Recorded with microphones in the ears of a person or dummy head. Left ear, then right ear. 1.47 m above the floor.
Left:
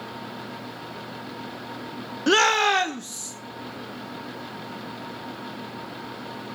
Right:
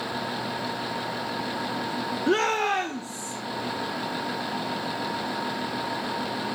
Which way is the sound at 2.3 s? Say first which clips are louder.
Left 5 dB; 35° left (ahead or behind).